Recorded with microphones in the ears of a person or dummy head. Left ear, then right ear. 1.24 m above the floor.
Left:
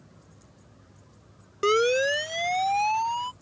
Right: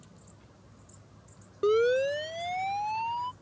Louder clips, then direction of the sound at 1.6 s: Left 3 dB; 55° left (ahead or behind).